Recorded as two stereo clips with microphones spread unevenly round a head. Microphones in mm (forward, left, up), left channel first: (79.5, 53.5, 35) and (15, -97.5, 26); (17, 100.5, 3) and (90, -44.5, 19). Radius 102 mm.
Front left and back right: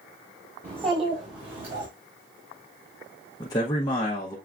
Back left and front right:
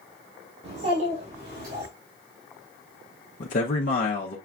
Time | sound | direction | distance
0.6 | a child speaking | 60° right | 1.7 m
3.4 | a man speaking | 135° left | 0.6 m